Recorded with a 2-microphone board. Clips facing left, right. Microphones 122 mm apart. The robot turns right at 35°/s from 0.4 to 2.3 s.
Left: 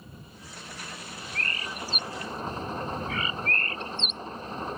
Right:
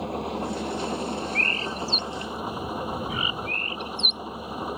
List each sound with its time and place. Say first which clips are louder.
0.0 s an engine running: right 20 dB; 75° right; by 4.8 s 10° right
1.4 s a bird: right 7 dB; 45° right (ahead or behind); by 4.2 s 15° right (ahead or behind)